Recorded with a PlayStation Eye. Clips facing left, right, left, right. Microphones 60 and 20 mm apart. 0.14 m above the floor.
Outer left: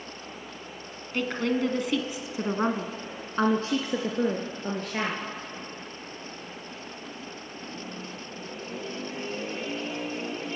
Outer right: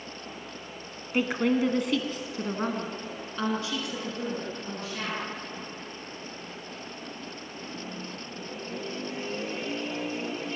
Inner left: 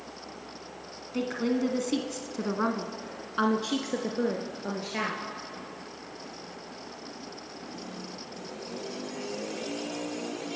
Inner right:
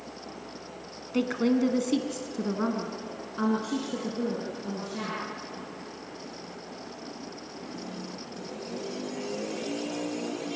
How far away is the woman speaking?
About 1.5 m.